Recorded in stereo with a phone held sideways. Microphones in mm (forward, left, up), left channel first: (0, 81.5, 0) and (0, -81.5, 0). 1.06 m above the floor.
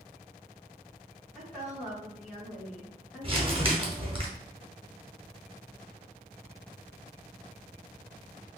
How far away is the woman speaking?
About 1.3 m.